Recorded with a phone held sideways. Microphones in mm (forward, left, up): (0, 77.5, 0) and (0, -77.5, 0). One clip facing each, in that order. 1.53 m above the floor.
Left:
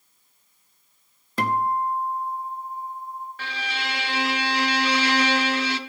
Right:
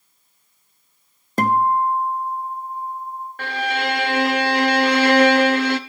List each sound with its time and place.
1.4 s a guitar: 45° right (ahead or behind), 0.8 m
3.4 s a violin: 55° right (ahead or behind), 0.6 m